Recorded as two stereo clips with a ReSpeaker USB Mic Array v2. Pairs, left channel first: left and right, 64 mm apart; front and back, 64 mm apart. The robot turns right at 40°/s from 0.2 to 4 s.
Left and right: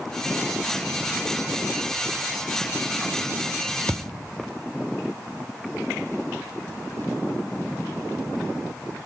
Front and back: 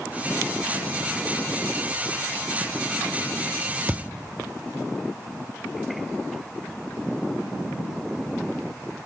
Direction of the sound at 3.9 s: 140° right.